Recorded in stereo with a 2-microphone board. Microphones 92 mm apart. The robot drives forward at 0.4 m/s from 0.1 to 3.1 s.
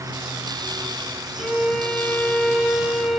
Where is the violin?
5° left (ahead or behind), 3.5 m.